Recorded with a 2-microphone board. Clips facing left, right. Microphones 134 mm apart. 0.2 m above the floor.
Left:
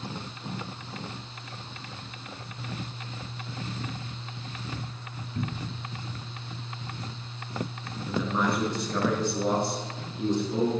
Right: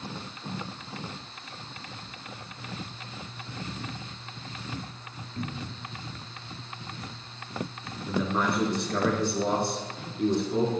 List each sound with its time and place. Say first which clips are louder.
5.3 s a cupboard door: left 2 dB; 35° left (ahead or behind), 1.2 m
8.1 s a man speaking: even; 5° left (ahead or behind), 3 m